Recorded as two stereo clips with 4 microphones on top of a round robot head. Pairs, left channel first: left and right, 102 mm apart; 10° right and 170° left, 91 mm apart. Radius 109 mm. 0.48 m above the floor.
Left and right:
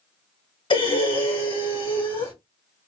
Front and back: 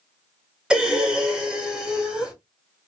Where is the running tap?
No running tap in this recording.